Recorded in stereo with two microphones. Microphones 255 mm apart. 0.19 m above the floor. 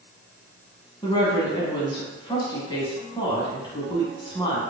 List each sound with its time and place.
1.0 s a woman speaking: 20° left (ahead or behind), 1.1 m